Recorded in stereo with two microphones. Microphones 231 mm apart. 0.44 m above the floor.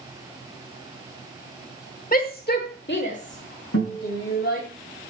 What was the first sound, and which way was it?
A shout, 40° left (ahead or behind).